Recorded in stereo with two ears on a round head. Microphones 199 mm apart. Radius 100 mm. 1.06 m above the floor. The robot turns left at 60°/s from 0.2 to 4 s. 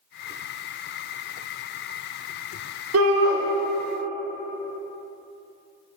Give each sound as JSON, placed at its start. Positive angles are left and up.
{"t": 2.9, "sound": "a shout", "side_deg": -70, "distance_m": 0.5}